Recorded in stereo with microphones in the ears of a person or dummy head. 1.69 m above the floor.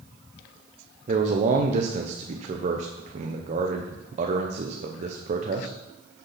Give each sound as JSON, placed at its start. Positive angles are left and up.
{"t": 1.1, "sound": "a man speaking", "side_deg": -45, "distance_m": 1.1}